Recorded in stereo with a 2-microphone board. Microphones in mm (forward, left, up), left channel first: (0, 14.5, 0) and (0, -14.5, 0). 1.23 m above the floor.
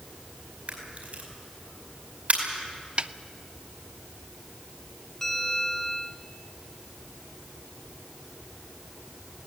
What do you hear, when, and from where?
0.7 s a camera shutter: 55° right (ahead or behind), 5 m
3.0 s a snare drum: 40° right (ahead or behind), 0.6 m
5.2 s a bell: 15° left (ahead or behind), 2.5 m